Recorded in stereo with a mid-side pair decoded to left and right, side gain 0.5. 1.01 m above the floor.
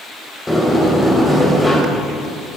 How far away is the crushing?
I don't hear crushing.